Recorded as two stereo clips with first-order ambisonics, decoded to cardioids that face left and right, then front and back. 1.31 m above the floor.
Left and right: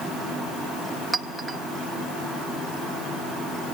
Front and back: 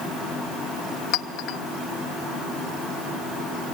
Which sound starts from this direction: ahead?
A clink, at 1.1 s.